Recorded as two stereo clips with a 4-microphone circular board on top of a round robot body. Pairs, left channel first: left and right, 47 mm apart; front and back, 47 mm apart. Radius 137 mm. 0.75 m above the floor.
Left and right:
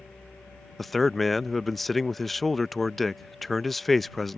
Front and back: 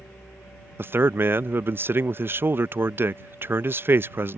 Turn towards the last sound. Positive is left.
turn(degrees=175)